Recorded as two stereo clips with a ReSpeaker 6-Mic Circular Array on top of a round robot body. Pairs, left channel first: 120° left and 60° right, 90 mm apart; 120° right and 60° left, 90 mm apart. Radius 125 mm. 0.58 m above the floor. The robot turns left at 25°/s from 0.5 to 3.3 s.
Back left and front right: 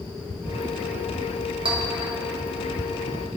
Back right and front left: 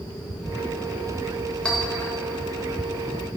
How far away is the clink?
About 1.4 m.